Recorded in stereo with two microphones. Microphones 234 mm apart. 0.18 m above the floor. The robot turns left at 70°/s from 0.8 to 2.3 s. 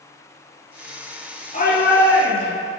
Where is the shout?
145° left, 2.5 m; by 2.7 s 90° left, 2.5 m.